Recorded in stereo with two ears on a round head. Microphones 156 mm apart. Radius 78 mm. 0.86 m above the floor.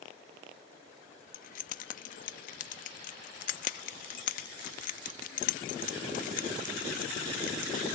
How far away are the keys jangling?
About 0.7 m.